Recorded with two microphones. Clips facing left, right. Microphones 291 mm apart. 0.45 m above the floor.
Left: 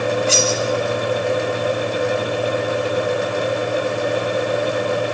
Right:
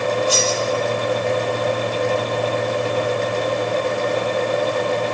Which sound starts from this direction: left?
Cutlery clinking, at 0.3 s.